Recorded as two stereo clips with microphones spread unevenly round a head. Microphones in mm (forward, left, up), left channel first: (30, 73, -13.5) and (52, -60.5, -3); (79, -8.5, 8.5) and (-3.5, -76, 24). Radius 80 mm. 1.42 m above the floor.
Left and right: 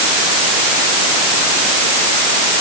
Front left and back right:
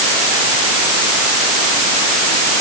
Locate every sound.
Only background noise.